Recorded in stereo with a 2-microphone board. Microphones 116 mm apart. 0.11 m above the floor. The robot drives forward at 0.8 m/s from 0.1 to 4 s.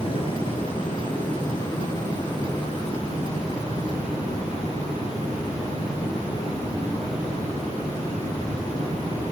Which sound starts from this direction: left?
Running water, at 0.0 s.